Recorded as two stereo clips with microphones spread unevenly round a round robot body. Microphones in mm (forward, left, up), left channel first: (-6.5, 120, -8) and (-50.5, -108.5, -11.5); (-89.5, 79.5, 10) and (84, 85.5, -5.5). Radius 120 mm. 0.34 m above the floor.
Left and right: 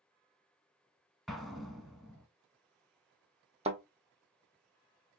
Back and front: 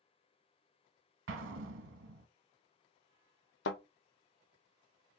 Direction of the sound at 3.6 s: 165° right.